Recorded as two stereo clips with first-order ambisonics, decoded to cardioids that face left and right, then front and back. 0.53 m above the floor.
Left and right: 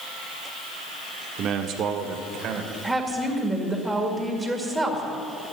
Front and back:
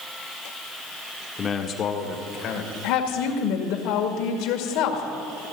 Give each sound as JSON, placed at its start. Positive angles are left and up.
{"t": 1.4, "sound": "a man speaking", "azimuth_deg": -65, "distance_m": 1.2}
{"t": 2.8, "sound": "a woman speaking", "azimuth_deg": -5, "distance_m": 2.0}